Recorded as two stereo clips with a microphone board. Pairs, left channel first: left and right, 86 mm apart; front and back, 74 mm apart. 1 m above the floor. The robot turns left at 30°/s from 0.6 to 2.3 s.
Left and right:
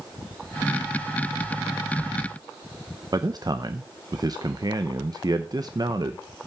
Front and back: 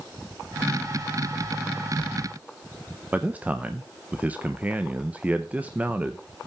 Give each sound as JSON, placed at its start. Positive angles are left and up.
{"t": 3.1, "sound": "a man speaking", "azimuth_deg": -115, "distance_m": 0.6}